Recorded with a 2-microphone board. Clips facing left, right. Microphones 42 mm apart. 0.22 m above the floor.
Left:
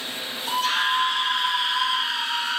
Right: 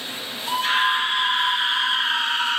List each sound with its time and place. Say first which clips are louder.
0.5 s a scream: right 2 dB; 25° right (ahead or behind), 4.5 m; by 2.6 s 50° right (ahead or behind), 3 m